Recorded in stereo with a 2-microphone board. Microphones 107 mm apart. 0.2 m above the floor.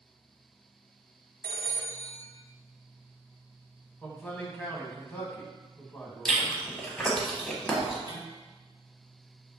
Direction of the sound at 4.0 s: 15° left (ahead or behind).